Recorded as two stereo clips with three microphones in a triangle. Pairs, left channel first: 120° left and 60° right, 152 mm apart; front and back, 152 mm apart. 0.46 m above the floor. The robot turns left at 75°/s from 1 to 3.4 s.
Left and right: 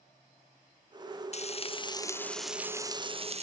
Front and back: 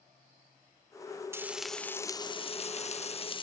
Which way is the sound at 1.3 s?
115° left.